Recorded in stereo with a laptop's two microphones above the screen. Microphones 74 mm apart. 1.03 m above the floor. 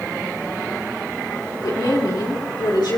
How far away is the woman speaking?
About 3.5 m.